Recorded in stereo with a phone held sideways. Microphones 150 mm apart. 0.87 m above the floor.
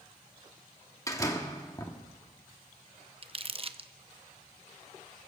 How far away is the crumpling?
About 0.5 m.